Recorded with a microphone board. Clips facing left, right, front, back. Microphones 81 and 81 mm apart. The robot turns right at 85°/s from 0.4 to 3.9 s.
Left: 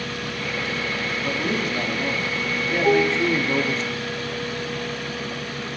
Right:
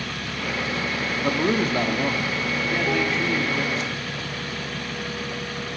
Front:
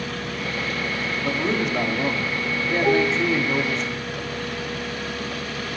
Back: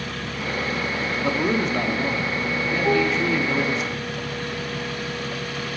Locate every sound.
1.2 s a man speaking: 120° right, 0.8 m; by 3.8 s 100° left, 0.8 m
2.8 s dishes clattering: 80° left, 1.0 m; by 3.2 s 110° left, 1.0 m